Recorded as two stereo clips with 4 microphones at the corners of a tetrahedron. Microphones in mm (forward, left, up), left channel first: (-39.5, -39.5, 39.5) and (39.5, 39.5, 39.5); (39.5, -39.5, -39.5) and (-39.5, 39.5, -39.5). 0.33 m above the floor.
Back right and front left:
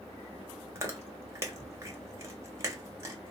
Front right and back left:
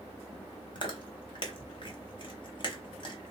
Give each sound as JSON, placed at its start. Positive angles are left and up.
{"t": 0.8, "sound": "chewing", "azimuth_deg": -15, "distance_m": 0.7}